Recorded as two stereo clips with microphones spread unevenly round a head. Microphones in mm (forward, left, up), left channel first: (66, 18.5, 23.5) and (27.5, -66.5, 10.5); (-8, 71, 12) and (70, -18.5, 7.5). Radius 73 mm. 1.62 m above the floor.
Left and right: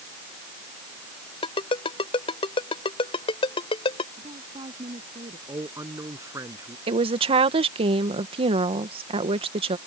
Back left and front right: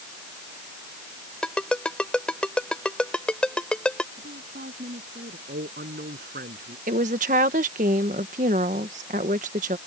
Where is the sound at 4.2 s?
80° right.